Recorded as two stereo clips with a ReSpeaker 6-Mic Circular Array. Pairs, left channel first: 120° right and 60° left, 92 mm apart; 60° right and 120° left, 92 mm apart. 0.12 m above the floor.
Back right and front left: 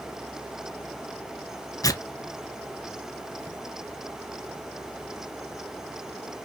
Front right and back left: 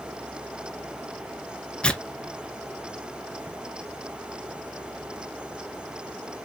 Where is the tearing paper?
130° right, 0.5 m.